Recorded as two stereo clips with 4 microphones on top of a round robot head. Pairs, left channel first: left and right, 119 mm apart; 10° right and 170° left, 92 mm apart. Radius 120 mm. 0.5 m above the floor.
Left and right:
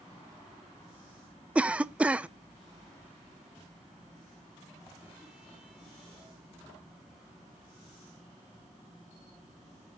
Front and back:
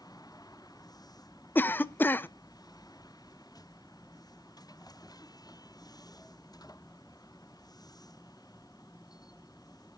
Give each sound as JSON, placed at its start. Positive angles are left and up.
{"t": 1.6, "sound": "a cough", "azimuth_deg": -30, "distance_m": 0.6}